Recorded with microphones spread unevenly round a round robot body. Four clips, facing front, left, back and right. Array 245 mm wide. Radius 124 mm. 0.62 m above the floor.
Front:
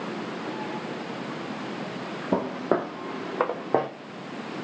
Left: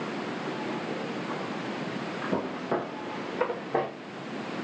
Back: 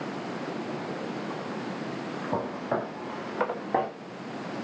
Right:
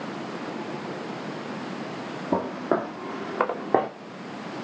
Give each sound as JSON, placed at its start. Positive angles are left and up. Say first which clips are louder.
{"t": 2.3, "sound": "footsteps", "louder": "right 6 dB, front 5 dB", "azimuth_deg": -30, "distance_m": 1.7}